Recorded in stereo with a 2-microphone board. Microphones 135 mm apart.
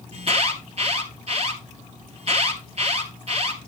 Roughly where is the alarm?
Right.